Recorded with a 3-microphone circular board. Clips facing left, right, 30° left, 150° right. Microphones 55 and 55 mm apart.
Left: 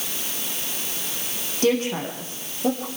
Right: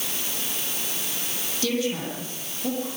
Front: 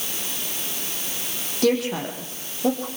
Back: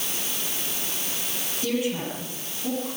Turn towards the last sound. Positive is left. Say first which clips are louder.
# left 5 dB, front 5 dB
turn(degrees=40)